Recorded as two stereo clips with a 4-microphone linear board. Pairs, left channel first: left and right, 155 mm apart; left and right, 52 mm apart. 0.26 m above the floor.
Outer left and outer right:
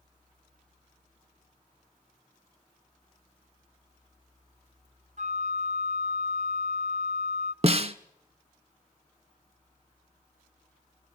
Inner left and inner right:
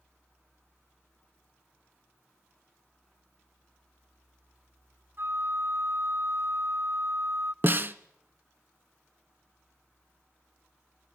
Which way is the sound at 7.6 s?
45° right (ahead or behind).